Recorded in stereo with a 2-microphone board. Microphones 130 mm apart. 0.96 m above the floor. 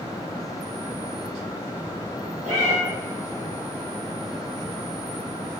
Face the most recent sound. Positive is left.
turn(degrees=-60)  # may be behind; listen again after turning